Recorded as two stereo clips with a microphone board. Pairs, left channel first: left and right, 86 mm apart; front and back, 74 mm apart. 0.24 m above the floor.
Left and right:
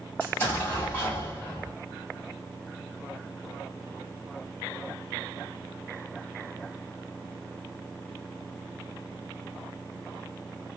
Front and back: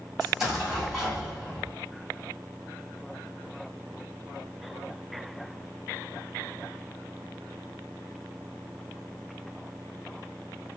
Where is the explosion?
110° left, 1.7 m.